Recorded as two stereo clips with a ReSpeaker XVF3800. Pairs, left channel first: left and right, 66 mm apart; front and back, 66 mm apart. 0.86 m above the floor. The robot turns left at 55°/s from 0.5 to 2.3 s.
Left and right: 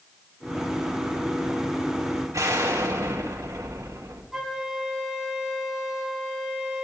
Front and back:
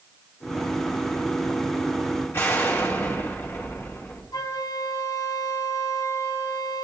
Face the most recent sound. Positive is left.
turn(degrees=-5)